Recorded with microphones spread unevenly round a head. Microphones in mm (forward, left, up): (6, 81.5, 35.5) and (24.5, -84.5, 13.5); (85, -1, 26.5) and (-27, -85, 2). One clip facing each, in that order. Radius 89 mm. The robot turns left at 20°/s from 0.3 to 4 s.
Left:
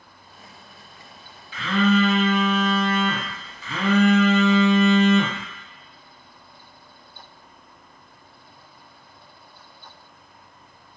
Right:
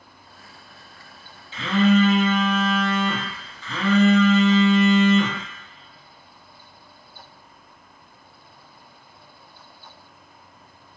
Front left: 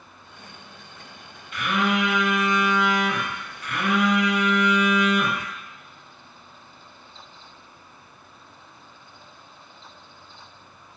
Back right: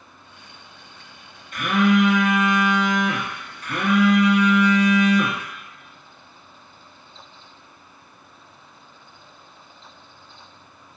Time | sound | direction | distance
1.5 | a phone buzzing | 135° right | 0.6 m